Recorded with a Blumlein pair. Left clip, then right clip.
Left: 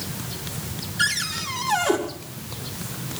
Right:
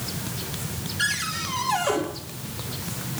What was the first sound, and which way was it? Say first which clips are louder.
A cupboard door: left 2 dB; 65° left.